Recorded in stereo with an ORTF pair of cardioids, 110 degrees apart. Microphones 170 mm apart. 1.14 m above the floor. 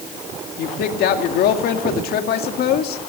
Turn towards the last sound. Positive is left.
turn(degrees=65)